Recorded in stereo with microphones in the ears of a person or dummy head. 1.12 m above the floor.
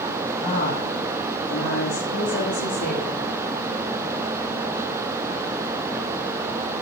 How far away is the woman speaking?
About 1.6 m.